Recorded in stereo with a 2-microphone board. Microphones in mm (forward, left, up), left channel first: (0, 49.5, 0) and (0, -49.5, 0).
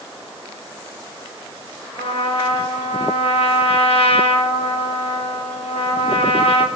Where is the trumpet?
75° left (ahead or behind), 2.5 m.